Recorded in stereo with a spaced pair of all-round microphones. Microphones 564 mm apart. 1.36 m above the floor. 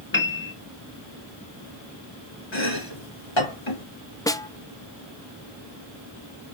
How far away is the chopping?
About 3 m.